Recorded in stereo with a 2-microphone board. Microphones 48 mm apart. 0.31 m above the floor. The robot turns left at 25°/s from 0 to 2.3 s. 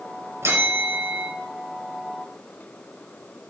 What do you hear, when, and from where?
0.4 s a bell: 60° right (ahead or behind), 5 m; by 1.3 s 40° right (ahead or behind), 5 m